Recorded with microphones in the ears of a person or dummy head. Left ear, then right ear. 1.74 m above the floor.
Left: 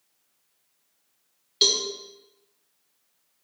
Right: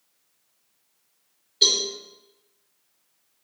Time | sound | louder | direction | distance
1.6 | a cowbell | right 2 dB | 45° left (ahead or behind) | 3.5 m